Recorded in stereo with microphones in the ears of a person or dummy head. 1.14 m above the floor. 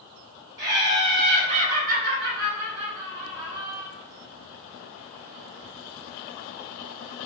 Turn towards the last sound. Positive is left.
turn(degrees=-10)  # may be behind; listen again after turning